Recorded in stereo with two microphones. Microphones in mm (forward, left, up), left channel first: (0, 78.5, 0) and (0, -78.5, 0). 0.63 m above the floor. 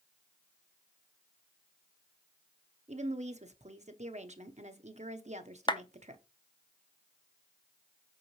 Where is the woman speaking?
45° right (ahead or behind), 0.9 m.